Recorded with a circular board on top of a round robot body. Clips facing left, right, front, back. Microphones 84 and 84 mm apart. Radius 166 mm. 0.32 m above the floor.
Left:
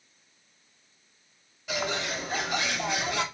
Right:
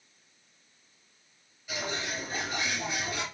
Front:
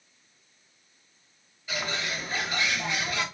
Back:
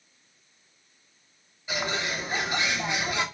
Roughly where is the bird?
Left.